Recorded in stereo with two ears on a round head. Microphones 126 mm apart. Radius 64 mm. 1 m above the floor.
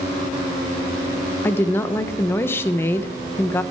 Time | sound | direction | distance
1.4 | a woman speaking | 15° left (ahead or behind) | 0.9 m